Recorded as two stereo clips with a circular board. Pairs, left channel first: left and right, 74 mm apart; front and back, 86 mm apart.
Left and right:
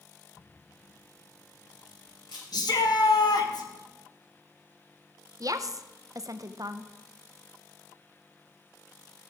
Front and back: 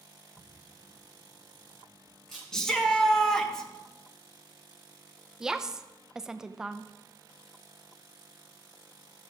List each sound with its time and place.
0.4 s a camera shutter: 85° left, 6.5 m
2.5 s a shout: 85° left, 1.5 m
5.4 s a woman speaking: 100° right, 0.6 m